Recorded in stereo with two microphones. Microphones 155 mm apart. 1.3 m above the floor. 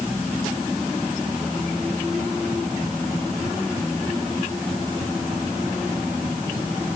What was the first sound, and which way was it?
Only background noise.